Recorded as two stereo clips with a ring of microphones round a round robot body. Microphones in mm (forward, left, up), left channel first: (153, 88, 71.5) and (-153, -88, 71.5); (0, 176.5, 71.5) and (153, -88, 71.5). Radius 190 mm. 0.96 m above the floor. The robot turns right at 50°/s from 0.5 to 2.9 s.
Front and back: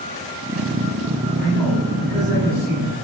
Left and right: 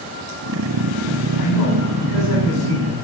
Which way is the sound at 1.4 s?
95° left.